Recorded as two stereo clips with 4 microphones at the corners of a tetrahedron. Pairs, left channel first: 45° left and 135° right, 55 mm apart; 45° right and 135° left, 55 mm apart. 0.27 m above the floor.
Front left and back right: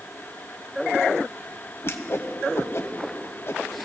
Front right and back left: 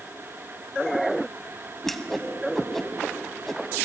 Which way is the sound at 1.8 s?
40° left.